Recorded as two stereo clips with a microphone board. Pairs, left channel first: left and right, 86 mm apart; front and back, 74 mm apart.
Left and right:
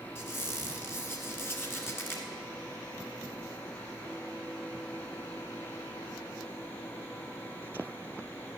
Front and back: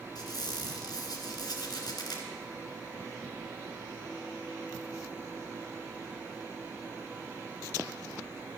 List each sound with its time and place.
0.1 s a squeak: 30° left, 1.8 m